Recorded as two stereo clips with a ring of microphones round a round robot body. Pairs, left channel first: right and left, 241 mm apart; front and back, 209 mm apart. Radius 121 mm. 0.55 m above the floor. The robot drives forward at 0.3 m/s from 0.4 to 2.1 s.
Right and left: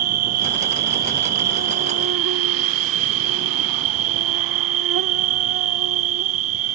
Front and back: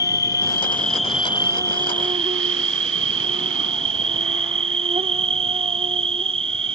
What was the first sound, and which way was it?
An insect, 75° left.